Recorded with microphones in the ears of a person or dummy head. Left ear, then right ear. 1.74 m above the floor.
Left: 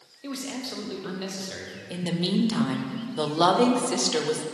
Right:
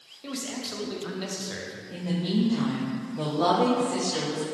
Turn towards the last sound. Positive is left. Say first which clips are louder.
# left 3 dB
turn(degrees=75)  # may be behind; listen again after turning